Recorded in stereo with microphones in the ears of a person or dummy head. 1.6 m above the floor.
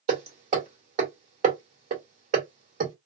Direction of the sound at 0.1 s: 45° right (ahead or behind).